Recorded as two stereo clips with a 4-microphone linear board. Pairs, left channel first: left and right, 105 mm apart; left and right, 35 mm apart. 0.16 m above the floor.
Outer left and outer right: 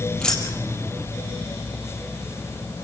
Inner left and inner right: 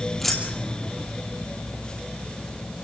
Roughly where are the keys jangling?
Centre.